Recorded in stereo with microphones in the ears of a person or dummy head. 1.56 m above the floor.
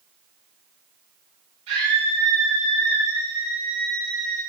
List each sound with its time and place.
1.7 s a scream: 45° right (ahead or behind), 6.5 m; by 4.4 s 25° right (ahead or behind), 7 m